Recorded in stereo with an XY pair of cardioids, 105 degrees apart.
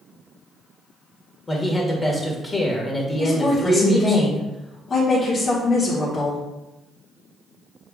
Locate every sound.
1.5 s a man speaking: 20° left, 1.6 m
3.2 s a woman speaking: 40° left, 1.6 m